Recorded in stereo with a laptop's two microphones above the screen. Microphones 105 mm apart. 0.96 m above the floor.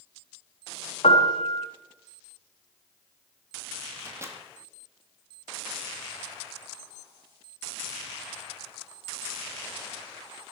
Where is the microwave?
25° right (ahead or behind), 1.7 m.